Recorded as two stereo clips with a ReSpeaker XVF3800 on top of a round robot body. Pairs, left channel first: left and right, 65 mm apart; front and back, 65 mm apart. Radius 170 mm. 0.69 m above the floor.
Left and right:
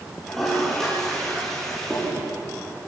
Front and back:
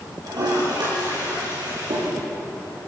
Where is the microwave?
I don't hear a microwave.